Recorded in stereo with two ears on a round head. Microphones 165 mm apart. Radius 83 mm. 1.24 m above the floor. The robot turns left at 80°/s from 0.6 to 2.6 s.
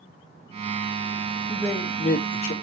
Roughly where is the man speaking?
Behind.